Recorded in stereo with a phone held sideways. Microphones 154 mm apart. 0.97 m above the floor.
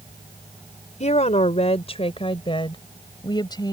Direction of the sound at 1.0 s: 50° left (ahead or behind).